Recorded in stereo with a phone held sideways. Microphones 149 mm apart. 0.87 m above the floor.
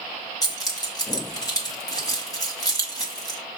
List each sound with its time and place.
0.4 s keys jangling: 25° left (ahead or behind), 1.2 m